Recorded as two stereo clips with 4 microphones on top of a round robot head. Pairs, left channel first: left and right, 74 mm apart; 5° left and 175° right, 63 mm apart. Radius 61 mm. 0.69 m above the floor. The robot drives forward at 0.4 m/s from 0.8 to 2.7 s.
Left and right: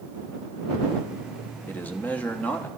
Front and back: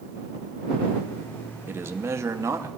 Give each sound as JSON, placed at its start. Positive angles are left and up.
{"t": 1.7, "sound": "a man speaking", "azimuth_deg": 145, "distance_m": 0.9}